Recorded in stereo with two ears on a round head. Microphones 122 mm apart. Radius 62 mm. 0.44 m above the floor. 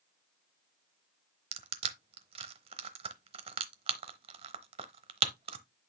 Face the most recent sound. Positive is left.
turn(degrees=-40)  # may be behind; listen again after turning